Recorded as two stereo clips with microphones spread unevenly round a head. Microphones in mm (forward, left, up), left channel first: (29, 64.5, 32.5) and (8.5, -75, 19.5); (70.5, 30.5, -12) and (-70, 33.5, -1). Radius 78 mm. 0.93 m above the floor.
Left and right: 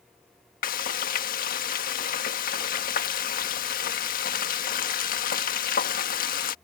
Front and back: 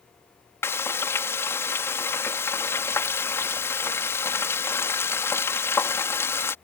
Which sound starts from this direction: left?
Frying, at 0.6 s.